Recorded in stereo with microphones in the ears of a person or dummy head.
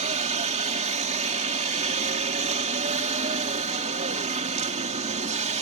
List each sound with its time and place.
0.0 s a helicopter: 40° right (ahead or behind)